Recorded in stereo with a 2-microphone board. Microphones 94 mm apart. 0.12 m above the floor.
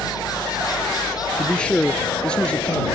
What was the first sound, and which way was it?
A helicopter, 45° left (ahead or behind).